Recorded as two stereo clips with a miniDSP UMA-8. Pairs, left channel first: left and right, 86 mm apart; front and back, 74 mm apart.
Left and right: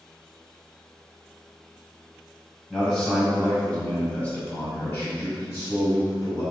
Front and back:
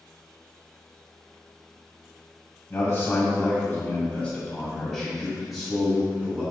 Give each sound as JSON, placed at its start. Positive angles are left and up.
{"t": 2.7, "sound": "a man speaking", "azimuth_deg": 5, "distance_m": 2.0}